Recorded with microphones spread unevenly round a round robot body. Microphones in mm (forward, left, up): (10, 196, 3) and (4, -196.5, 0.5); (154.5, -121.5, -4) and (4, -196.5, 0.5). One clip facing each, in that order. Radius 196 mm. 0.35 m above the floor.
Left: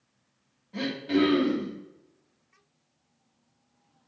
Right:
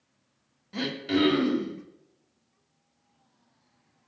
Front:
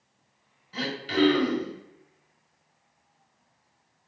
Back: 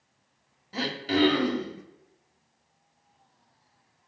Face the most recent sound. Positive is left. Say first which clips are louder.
# left 1 dB, even
turn(degrees=-125)